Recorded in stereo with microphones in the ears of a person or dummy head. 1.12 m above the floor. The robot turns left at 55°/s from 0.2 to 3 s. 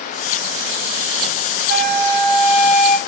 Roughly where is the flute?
Right.